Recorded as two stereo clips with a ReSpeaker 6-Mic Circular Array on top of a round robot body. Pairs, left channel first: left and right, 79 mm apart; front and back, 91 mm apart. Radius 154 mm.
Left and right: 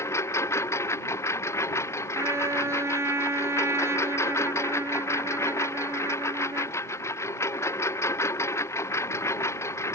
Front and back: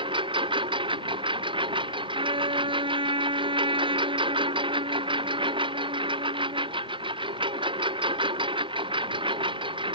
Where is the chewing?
No chewing in this recording.